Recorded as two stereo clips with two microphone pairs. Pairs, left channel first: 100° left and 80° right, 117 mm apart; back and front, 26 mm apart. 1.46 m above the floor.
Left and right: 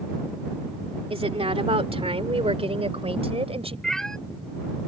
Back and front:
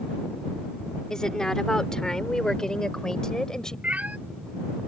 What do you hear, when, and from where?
1.1 s a woman speaking: 115° right
3.8 s a cat meowing: 10° left